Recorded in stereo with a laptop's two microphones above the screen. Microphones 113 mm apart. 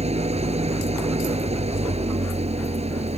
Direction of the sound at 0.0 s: 70° right (ahead or behind).